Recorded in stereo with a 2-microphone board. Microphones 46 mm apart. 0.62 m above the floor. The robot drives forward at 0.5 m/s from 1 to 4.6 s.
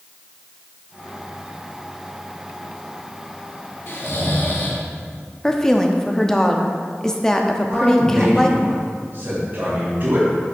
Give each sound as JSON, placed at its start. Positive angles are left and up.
{"t": 3.9, "sound": "snoring", "side_deg": 60, "distance_m": 1.1}
{"t": 5.4, "sound": "a woman speaking", "side_deg": 15, "distance_m": 0.6}
{"t": 7.7, "sound": "a man speaking", "side_deg": -50, "distance_m": 2.5}